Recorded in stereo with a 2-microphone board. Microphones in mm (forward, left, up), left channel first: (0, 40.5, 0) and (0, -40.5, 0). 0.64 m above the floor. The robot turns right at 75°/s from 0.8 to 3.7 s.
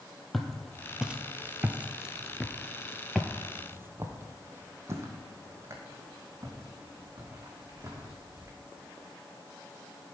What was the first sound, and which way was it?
Footsteps, 5° left (ahead or behind).